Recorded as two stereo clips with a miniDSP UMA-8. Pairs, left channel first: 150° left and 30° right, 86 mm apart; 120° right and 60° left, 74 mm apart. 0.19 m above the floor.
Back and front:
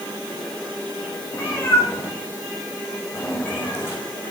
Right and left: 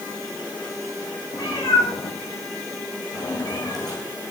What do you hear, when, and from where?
1.3 s a cat meowing: 150° right, 5.5 m